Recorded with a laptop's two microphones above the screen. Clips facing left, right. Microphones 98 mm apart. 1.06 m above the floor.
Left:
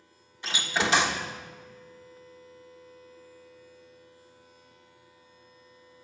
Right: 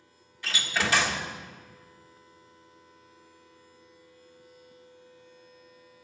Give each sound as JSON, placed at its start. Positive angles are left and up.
{"t": 0.4, "sound": "a door slam", "side_deg": 25, "distance_m": 1.5}